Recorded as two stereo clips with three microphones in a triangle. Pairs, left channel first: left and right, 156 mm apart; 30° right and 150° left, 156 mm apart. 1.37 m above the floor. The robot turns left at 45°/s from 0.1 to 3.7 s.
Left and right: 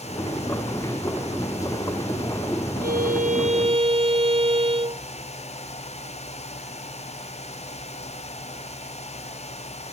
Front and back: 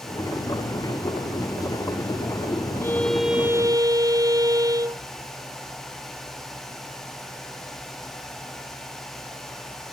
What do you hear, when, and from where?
2.8 s a violin: 105° right; by 5.0 s 145° right